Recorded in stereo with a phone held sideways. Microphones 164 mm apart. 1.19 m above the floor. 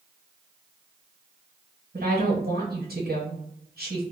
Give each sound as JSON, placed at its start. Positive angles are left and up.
{"t": 1.9, "sound": "a woman speaking", "side_deg": -70, "distance_m": 1.0}